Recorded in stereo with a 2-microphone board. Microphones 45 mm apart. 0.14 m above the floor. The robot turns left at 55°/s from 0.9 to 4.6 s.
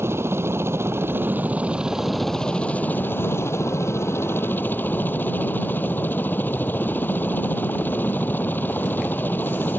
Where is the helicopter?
115° right; by 9.8 s 45° left.